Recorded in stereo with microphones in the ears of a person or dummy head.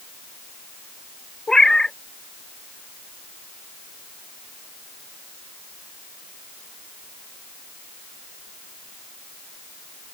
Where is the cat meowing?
5° left (ahead or behind).